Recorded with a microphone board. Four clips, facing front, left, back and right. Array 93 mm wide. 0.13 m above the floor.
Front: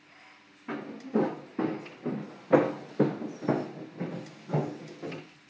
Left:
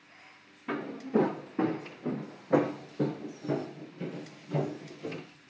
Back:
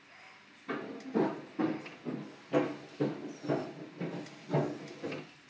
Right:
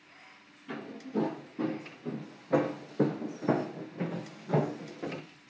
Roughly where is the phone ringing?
I don't hear a phone ringing.